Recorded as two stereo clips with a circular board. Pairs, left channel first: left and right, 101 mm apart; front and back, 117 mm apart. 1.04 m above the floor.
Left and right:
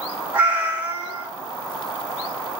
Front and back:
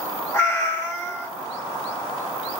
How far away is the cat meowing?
About 0.8 m.